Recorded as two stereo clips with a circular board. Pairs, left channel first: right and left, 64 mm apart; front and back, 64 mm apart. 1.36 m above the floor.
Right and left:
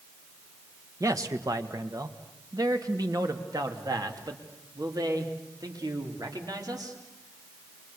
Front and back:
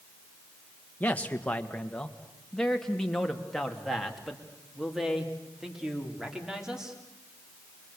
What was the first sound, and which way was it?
A man speaking, 65° left.